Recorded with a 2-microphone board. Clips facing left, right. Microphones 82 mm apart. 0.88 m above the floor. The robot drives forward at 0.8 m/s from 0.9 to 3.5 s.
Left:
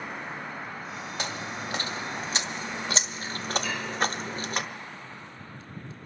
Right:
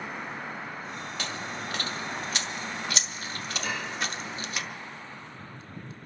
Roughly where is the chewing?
Centre.